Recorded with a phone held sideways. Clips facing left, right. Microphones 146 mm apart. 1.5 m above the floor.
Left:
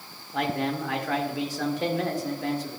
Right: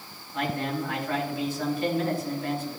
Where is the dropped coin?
I don't hear a dropped coin.